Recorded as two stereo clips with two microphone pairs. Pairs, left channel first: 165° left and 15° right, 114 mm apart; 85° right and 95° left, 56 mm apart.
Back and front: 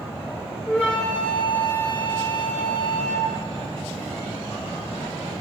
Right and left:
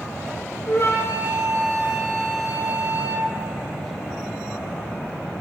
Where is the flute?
115° right, 4.5 m.